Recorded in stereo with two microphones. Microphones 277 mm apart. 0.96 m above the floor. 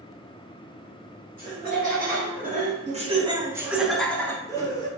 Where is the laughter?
35° right (ahead or behind), 1.7 m; by 4.9 s 15° left (ahead or behind), 1.3 m.